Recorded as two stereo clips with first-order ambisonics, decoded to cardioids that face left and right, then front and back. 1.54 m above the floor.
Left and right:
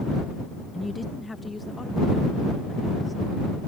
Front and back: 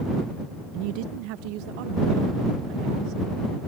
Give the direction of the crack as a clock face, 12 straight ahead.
No crack in this recording.